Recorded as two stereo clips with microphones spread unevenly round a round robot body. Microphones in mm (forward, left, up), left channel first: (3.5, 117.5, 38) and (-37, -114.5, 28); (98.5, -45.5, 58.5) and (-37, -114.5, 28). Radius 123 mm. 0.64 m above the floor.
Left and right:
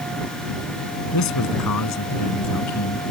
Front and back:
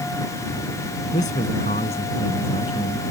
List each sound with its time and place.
1.1 s a man speaking: 85° left; by 3.0 s 95° left